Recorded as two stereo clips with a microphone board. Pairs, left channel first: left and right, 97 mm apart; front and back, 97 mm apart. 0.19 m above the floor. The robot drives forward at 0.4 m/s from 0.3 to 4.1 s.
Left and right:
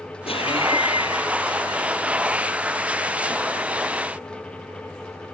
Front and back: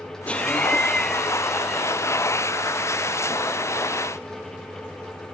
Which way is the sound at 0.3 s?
80° left.